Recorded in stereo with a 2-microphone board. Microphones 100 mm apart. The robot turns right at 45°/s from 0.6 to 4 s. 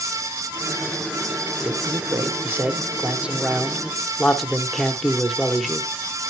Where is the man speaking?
20° right (ahead or behind), 0.8 m; by 5.9 s centre (ahead or behind), 0.8 m.